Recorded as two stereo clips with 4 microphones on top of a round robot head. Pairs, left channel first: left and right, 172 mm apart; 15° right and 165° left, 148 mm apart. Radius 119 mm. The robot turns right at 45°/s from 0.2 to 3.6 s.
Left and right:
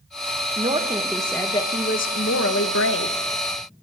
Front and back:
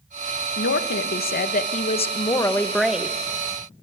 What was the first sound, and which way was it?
A woman speaking, 25° right.